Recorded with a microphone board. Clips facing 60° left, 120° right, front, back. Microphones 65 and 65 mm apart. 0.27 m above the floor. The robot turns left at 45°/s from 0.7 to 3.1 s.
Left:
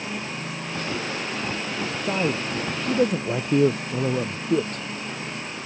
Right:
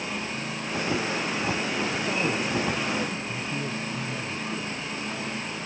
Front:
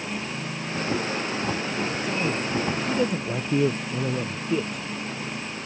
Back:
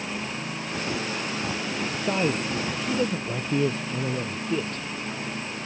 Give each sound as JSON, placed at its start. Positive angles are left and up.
{"t": 2.0, "sound": "a man speaking", "azimuth_deg": 130}